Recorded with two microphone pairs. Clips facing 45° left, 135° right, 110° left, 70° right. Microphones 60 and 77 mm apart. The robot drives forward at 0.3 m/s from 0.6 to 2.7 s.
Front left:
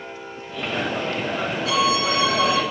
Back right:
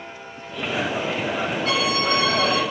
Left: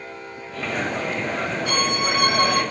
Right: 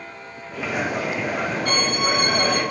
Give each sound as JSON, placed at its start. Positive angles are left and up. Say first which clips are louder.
{"t": 1.6, "sound": "a violin", "louder": "front left 3 dB, even", "azimuth_deg": -90, "distance_m": 3.5}